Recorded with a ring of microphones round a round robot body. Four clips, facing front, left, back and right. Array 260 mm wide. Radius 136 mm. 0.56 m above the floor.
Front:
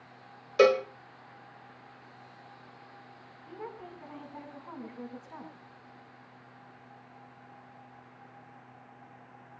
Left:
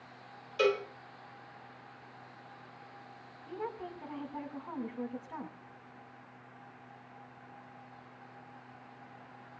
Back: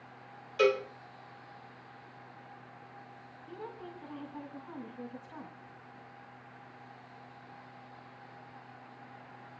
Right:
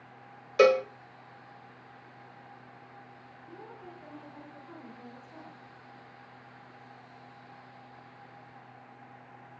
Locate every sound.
0.6 s a cowbell: 45° right, 1.6 m
3.5 s a woman speaking: 75° left, 6 m